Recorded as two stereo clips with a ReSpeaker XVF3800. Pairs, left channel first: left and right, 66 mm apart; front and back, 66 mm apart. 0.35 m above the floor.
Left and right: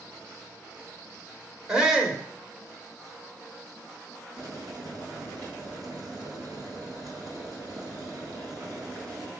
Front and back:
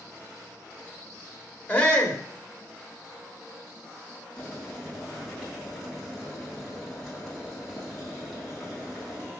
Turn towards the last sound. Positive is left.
turn(degrees=-90)